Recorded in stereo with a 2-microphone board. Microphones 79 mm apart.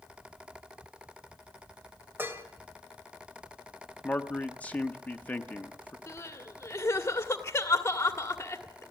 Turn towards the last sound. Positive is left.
turn(degrees=35)  # may be behind; listen again after turning